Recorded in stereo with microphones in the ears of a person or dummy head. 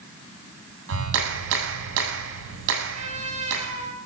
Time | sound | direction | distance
0.9 | a clap | 80° right | 7.5 m
2.9 | a trumpet | 40° right (ahead or behind) | 8 m